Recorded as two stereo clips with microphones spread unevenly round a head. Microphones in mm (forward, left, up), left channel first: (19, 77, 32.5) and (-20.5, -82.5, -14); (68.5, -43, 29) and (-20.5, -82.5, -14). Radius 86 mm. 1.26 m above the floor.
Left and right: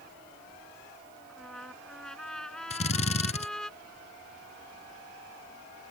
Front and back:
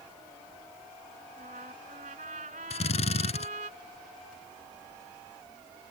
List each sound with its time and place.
1.3 s a trumpet: 160° left
2.7 s a drill: 25° left